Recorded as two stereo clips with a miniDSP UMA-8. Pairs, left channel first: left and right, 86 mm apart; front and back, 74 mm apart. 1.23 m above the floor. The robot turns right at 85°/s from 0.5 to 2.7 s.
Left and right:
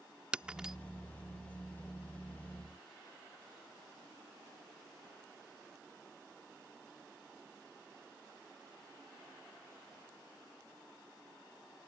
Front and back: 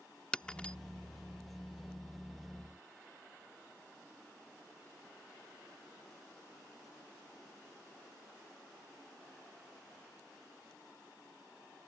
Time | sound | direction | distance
0.3 | breaking glass | 35° right | ?